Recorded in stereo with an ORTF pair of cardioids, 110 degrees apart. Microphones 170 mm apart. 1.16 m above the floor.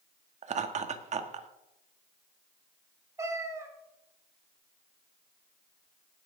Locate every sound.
0.4 s laughter: 45° right, 1.7 m
3.2 s a cat meowing: 20° right, 2.5 m